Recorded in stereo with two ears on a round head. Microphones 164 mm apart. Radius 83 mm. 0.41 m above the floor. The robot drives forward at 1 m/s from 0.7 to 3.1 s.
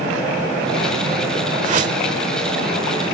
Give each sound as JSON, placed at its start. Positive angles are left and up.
{"t": 1.6, "sound": "a whoosh", "side_deg": -40}